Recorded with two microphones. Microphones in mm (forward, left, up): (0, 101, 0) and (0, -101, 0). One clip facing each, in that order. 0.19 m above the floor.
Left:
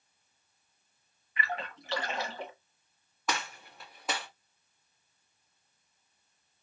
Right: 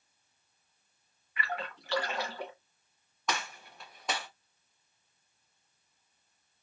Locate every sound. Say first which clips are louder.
1.4 s a splash: left 1 dB; 25° left (ahead or behind), 1.3 m
3.3 s a gunshot: even; 5° left (ahead or behind), 1.3 m